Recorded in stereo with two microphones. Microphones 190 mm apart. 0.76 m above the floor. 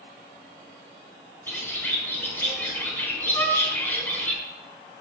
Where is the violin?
15° left (ahead or behind), 4 m.